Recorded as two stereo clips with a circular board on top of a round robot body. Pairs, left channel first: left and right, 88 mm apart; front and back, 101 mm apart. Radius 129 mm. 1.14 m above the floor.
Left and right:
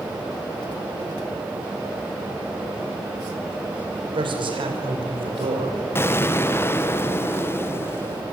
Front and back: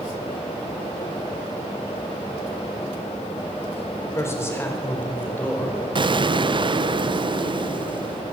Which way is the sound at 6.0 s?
150° left.